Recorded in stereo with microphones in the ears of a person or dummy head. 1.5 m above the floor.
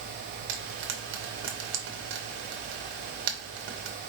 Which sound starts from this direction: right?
Frying, at 0.5 s.